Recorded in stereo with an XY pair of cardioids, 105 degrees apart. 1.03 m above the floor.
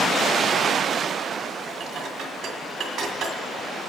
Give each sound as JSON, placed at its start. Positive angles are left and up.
{"t": 1.8, "sound": "dishes clattering", "azimuth_deg": -65, "distance_m": 1.9}